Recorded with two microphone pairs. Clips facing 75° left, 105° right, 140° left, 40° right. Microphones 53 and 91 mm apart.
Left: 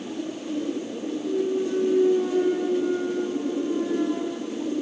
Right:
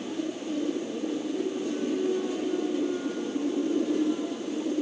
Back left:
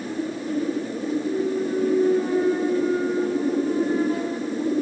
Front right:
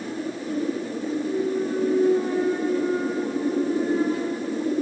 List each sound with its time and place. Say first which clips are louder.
1.2 s a clunk: left 5 dB, even; 45° left, 3 m